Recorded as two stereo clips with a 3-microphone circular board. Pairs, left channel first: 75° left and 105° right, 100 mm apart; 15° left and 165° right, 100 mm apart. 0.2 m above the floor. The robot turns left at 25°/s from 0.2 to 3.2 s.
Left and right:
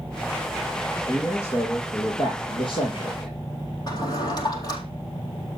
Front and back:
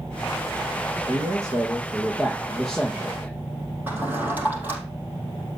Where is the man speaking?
150° left, 6.5 m; by 3.3 s 90° left, 6.5 m.